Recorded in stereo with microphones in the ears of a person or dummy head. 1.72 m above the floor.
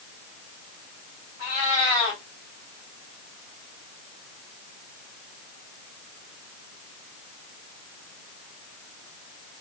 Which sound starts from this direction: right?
A cat meowing, at 1.4 s.